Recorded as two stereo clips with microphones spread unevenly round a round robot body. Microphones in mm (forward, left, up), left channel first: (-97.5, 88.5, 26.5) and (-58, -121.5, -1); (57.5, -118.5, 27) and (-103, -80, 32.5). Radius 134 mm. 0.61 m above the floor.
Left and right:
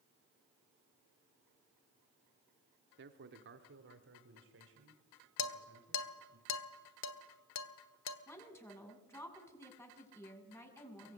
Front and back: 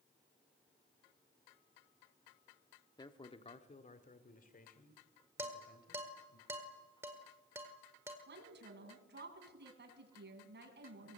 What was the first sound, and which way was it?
A man speaking, 75° right.